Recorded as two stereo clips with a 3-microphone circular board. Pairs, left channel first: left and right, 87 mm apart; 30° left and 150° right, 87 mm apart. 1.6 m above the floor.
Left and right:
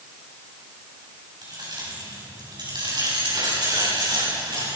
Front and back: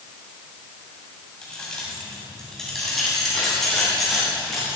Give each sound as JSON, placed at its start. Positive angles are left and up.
{"t": 1.4, "sound": "keys jangling", "azimuth_deg": -50, "distance_m": 9.0}